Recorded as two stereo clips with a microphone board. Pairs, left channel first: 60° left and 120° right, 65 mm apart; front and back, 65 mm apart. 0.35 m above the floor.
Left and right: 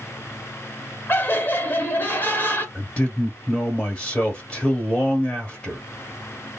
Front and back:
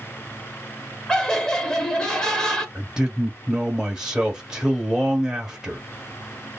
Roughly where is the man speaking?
Left.